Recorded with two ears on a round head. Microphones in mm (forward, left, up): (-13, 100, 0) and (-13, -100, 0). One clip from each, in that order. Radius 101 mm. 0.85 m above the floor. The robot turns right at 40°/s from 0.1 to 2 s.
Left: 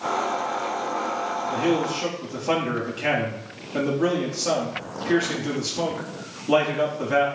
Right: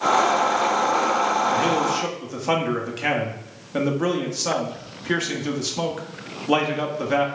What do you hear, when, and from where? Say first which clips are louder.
1.5 s a man speaking: right 3 dB; 40° right (ahead or behind), 1.3 m; by 7.3 s 20° right (ahead or behind), 1.3 m